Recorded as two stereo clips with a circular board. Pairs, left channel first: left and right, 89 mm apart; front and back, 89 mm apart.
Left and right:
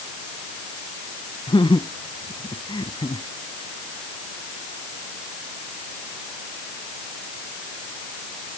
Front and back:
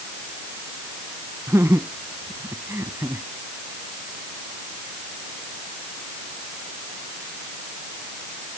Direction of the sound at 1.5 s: 120° left.